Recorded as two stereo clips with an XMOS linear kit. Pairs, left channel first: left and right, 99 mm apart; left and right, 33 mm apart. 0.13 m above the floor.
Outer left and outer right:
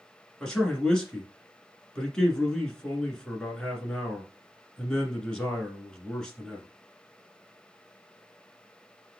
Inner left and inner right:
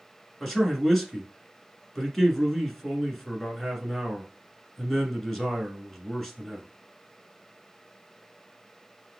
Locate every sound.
0.4 s a man speaking: 10° left (ahead or behind), 1.4 m